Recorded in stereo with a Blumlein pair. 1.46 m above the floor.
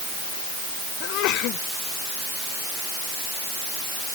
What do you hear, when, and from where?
1.0 s a sneeze: 40° left